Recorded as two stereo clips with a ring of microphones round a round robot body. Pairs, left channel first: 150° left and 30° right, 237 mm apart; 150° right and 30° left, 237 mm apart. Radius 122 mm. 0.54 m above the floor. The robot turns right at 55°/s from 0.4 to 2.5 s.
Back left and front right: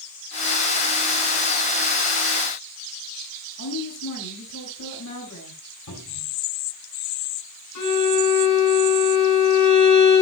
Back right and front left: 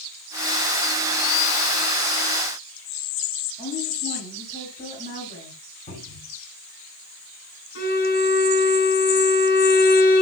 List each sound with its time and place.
3.6 s a woman speaking: 145° left, 7 m
5.9 s a cupboard door: 145° left, 6.5 m
7.8 s a violin: 160° left, 7 m